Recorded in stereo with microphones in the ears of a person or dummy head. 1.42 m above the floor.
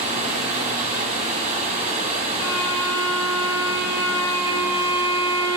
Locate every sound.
0.0 s running water: 40° right (ahead or behind), 1.5 m
2.4 s a violin: 15° left (ahead or behind), 2 m